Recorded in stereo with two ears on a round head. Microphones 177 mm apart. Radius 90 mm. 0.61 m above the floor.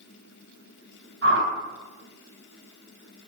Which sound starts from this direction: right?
A whoosh, at 1.2 s.